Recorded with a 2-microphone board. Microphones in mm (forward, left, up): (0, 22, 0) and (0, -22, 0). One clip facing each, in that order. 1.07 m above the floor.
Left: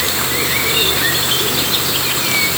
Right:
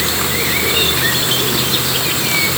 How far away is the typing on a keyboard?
No typing on a keyboard in this recording.